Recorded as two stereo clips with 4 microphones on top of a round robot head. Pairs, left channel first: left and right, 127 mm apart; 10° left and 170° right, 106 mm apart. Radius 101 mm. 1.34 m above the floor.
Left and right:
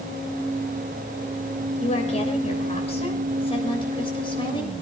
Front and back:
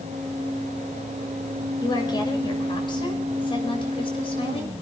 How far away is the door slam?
No door slam in this recording.